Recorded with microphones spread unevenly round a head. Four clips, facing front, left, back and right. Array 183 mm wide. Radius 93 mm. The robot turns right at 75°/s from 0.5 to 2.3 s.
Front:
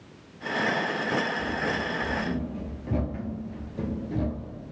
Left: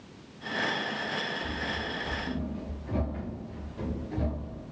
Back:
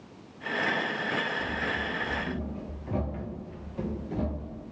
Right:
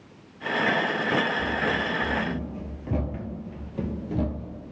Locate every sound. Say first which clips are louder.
1.4 s running footsteps: right 8 dB, front 3 dB; 95° right, 2.5 m